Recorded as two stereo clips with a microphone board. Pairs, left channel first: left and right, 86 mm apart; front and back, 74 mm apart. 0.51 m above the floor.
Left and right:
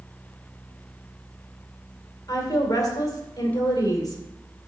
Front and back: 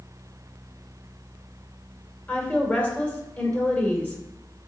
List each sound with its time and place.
2.3 s a woman speaking: 60° left, 2 m